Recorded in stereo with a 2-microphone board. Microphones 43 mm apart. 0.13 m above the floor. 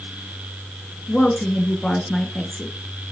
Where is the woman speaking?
20° left (ahead or behind), 2 m.